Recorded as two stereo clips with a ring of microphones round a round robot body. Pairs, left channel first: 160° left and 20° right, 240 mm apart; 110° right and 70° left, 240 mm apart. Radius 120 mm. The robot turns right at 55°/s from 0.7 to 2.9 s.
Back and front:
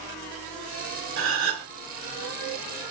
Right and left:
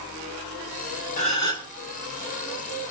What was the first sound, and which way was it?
A gasp, 55° right.